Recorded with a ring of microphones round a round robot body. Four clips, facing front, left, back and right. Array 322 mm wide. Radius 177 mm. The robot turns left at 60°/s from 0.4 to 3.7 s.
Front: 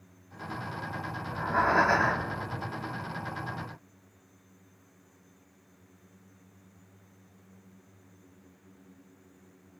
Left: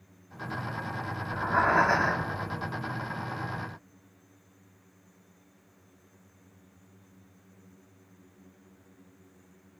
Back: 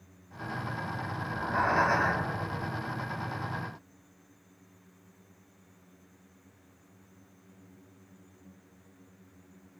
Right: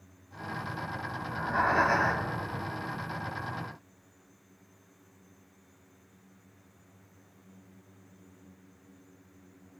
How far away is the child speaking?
No child speaking in this recording.